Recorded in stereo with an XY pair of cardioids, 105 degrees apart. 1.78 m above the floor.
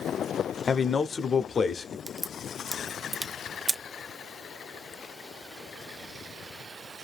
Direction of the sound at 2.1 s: 20° right.